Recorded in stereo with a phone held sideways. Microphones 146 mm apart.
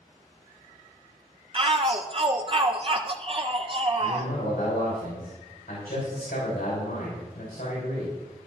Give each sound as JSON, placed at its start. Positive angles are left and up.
{"t": 1.5, "sound": "a shout", "side_deg": -40, "distance_m": 0.7}
{"t": 4.0, "sound": "a man speaking", "side_deg": 80, "distance_m": 5.5}